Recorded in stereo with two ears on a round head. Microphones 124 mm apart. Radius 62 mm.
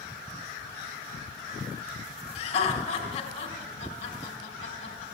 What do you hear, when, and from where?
2.4 s laughter: 45° left (ahead or behind), 3 m